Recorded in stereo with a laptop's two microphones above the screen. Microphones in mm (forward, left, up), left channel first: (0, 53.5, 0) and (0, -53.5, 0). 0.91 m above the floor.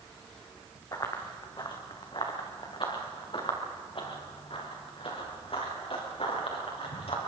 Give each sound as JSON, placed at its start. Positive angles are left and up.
{"t": 0.9, "sound": "running footsteps", "side_deg": 35, "distance_m": 3.0}